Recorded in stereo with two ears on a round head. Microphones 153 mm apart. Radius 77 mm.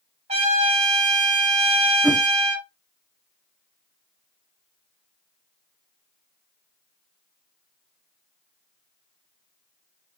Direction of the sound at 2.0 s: 5° right (ahead or behind).